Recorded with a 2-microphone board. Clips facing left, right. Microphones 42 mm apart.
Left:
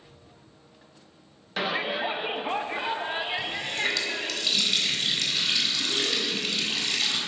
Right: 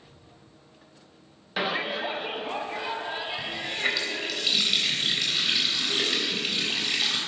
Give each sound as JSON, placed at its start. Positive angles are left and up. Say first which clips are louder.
{"t": 1.6, "sound": "a shout", "louder": "even", "side_deg": -5, "distance_m": 0.9}
{"t": 3.4, "sound": "a running tap", "louder": "left 1 dB", "side_deg": -10, "distance_m": 4.0}